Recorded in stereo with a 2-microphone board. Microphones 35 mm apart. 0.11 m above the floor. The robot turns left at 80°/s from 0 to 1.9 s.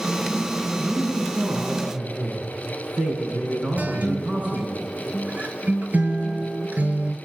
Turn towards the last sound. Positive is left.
turn(degrees=-50)  # may be behind; listen again after turning